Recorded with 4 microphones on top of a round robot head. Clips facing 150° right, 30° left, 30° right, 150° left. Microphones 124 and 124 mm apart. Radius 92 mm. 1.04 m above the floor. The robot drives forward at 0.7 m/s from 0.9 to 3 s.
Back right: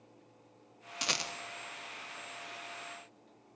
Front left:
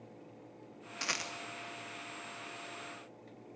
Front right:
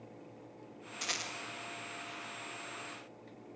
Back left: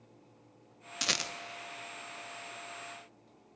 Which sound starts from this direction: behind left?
A rattle, at 1.0 s.